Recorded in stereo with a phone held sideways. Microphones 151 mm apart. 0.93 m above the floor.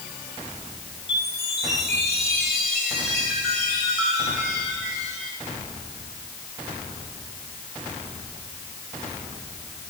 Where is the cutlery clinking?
No cutlery clinking in this recording.